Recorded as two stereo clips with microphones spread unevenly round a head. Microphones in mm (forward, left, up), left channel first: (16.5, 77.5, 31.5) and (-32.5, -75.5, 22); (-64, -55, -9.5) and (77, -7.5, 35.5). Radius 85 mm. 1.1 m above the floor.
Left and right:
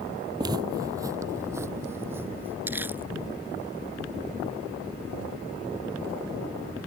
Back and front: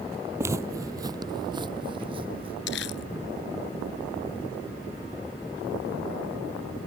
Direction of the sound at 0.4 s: 40° right.